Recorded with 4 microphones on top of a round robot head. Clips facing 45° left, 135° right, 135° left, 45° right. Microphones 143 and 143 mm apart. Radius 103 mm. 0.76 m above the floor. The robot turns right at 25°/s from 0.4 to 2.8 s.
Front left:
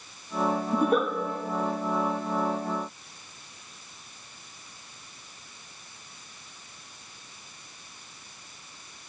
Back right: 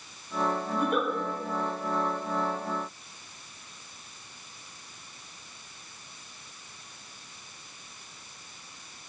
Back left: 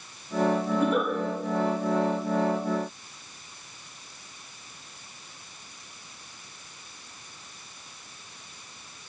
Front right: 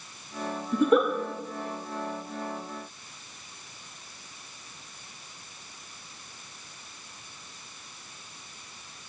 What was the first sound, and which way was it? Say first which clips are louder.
A giggle: front left 5 dB, front right 3 dB; 15° right.